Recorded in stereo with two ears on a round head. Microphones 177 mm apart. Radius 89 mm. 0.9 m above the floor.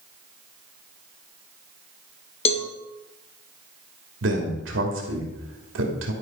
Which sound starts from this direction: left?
A cowbell, at 2.5 s.